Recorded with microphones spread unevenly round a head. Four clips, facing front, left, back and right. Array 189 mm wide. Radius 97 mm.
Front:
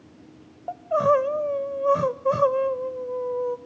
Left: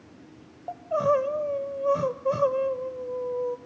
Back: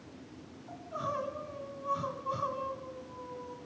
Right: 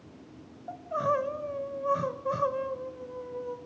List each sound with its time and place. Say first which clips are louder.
0.7 s crying: left 5 dB, front 17 dB; 10° left, 0.6 m